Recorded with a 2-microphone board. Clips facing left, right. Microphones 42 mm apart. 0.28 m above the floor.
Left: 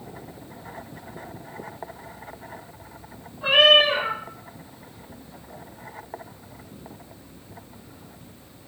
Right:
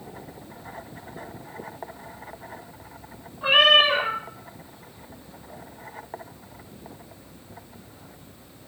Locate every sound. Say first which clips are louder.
3.4 s a cat meowing: left 1 dB; 10° right (ahead or behind), 0.8 m